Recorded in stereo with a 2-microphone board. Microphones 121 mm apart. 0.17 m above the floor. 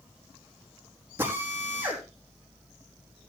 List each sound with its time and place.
1.2 s a drill: 20° right (ahead or behind), 5.5 m